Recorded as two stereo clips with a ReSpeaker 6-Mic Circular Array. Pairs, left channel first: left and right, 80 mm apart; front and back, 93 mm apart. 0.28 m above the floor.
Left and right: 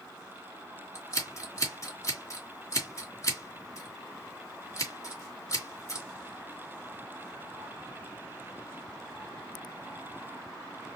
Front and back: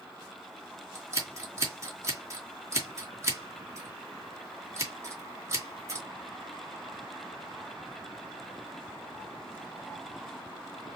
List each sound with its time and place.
0.9 s scissors: 130° left, 2 m